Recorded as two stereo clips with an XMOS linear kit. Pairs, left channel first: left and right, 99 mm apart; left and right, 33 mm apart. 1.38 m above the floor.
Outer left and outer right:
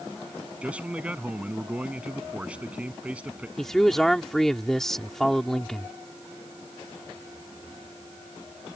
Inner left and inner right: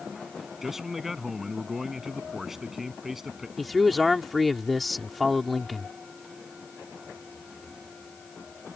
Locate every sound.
0.6 s a man speaking: 15° right (ahead or behind)
3.6 s a man speaking: 5° left (ahead or behind)